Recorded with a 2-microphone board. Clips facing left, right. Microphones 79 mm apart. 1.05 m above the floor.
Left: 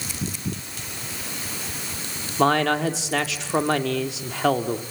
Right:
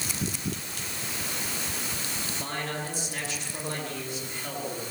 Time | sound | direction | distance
2.4 | a man speaking | 80° left | 2 m